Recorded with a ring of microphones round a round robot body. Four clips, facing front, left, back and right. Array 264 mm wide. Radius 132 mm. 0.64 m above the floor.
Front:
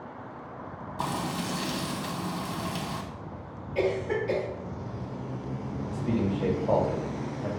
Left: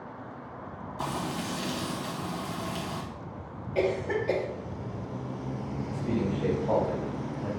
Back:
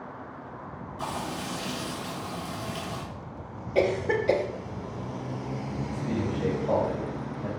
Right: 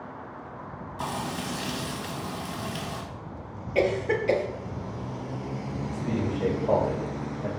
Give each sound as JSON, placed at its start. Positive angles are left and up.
{"t": 1.0, "sound": "frying", "azimuth_deg": -20, "distance_m": 1.1}
{"t": 3.8, "sound": "a cough", "azimuth_deg": -155, "distance_m": 0.7}
{"t": 5.9, "sound": "a man speaking", "azimuth_deg": -60, "distance_m": 1.3}